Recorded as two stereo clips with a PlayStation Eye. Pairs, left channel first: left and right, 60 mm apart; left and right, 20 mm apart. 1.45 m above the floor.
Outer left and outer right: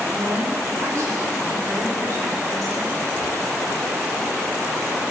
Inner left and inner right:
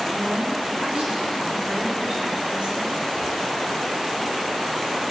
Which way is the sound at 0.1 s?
65° right (ahead or behind).